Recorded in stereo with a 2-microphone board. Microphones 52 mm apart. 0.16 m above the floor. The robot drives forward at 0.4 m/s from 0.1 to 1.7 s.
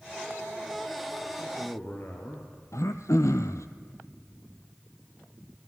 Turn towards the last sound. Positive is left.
turn(degrees=85)